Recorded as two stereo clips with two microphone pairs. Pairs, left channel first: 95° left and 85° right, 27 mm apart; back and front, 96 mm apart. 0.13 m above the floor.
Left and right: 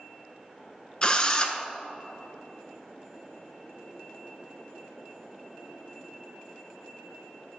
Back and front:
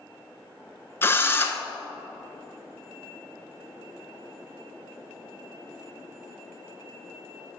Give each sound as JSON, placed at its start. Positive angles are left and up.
{"t": 1.0, "sound": "a drill", "azimuth_deg": 135, "distance_m": 0.5}